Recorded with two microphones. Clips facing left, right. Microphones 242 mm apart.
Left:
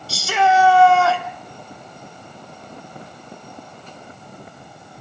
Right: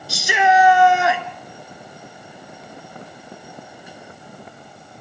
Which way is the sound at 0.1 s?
15° right (ahead or behind).